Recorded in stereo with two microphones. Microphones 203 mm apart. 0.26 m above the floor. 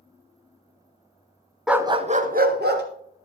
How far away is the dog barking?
About 0.6 m.